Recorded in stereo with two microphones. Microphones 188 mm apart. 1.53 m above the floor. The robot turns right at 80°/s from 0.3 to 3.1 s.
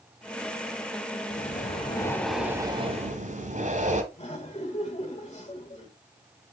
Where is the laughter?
30° left (ahead or behind), 2.5 m.